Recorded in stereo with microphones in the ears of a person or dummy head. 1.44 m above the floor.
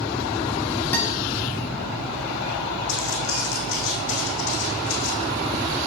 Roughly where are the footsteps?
Left.